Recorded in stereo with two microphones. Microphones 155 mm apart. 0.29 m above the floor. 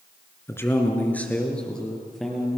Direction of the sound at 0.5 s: 15° left (ahead or behind).